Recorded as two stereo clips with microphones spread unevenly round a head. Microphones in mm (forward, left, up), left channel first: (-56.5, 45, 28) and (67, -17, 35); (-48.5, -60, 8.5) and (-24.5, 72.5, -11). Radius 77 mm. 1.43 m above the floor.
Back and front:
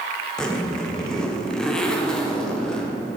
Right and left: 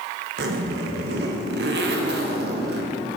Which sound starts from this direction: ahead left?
A zipper, at 0.4 s.